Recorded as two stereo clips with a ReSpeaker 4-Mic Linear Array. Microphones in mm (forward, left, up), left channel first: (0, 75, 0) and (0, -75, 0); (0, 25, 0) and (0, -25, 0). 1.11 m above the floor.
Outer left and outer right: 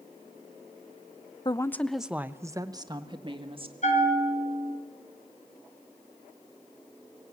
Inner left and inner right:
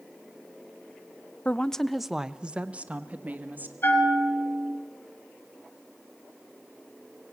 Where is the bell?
50° left (ahead or behind), 4 m.